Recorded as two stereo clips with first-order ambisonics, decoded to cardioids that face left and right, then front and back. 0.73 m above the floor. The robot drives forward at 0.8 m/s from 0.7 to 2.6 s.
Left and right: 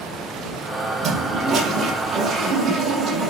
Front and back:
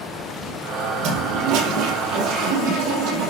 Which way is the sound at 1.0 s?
155° right.